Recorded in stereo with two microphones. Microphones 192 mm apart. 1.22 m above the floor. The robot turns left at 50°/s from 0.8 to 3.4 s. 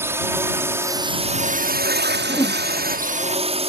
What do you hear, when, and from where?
0.0 s a drone: 15° right; by 3.7 s 145° right
2.3 s a whoosh: 15° left (ahead or behind); by 2.6 s 35° left (ahead or behind)